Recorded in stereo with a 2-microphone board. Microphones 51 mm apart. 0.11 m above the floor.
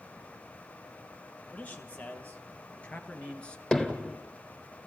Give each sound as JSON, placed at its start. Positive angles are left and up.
{"t": 1.5, "sound": "a man speaking", "side_deg": 30, "distance_m": 3.5}
{"t": 3.7, "sound": "hammering", "side_deg": 10, "distance_m": 1.6}